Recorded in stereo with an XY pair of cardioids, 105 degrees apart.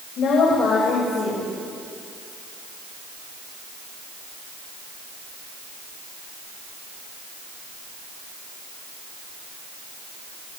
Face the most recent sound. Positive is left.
turn(degrees=65)